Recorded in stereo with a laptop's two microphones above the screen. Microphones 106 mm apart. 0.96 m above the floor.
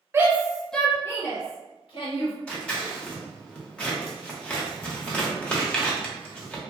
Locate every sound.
0.1 s a shout: 25° right (ahead or behind), 0.6 m; by 2.3 s 55° left (ahead or behind), 1.1 m
2.5 s scissors: 10° left (ahead or behind), 0.9 m